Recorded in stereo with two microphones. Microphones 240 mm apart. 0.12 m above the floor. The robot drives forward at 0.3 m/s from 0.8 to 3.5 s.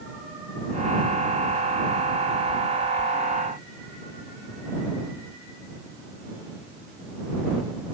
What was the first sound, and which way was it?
Only background noise.